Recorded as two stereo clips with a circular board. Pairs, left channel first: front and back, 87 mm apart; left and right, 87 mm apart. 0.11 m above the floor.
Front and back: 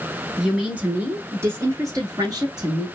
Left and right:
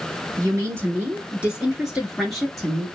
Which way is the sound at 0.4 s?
100° right.